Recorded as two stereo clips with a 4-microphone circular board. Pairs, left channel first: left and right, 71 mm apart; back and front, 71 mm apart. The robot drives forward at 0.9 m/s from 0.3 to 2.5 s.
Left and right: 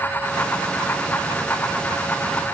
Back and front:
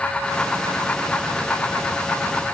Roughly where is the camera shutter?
No camera shutter in this recording.